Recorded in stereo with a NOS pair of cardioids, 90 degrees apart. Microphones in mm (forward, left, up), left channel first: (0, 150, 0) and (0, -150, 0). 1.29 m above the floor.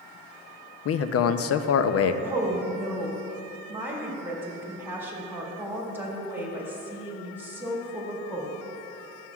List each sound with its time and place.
0.8 s a man speaking: 50° left, 0.5 m
2.2 s a woman speaking: 5° right, 2 m